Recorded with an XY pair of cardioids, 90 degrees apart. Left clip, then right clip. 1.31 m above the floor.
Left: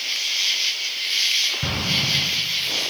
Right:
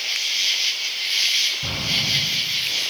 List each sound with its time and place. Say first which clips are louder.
0.0 s an insect: right 1 dB; 10° right, 0.8 m
1.6 s an explosion: even; 65° left, 7.5 m